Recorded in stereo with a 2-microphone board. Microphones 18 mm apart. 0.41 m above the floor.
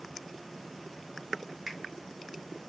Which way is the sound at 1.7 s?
25° right (ahead or behind).